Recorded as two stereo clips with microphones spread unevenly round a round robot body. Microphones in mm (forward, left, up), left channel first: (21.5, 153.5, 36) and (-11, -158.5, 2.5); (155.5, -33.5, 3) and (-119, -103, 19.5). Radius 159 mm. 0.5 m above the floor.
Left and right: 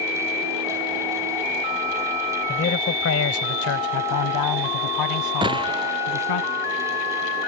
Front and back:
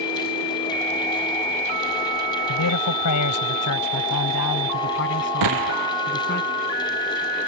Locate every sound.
2.5 s a man speaking: 25° left; by 6.4 s 75° left
5.4 s a gunshot: 170° right